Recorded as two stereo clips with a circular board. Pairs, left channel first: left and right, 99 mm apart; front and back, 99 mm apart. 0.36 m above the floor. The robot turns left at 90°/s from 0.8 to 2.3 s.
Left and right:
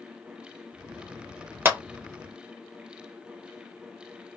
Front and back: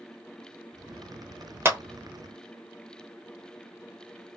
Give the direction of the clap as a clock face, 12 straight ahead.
5 o'clock.